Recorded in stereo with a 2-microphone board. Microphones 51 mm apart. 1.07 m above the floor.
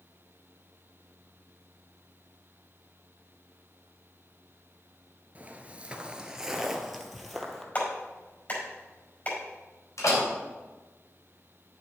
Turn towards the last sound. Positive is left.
turn(degrees=85)